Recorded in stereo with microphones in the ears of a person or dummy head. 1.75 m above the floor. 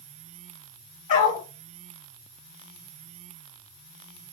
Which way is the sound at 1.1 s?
45° left (ahead or behind).